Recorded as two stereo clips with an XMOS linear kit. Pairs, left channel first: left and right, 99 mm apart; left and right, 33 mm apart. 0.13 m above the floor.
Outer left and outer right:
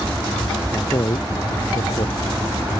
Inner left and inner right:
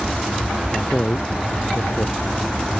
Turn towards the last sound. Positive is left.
turn(degrees=60)  # may be behind; listen again after turning